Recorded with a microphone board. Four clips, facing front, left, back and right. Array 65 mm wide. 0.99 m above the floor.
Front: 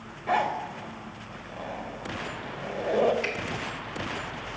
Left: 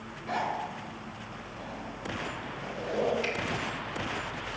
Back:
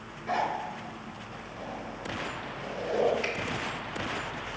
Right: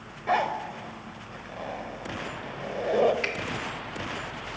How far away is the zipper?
About 1.0 m.